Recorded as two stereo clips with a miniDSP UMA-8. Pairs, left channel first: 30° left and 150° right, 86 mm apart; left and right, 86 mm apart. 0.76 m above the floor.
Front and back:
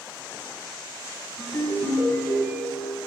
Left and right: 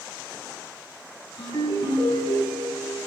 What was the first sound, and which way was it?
A ringtone, 100° left.